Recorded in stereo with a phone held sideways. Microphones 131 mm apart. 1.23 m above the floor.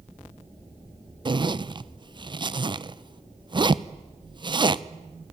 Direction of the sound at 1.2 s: 35° right (ahead or behind).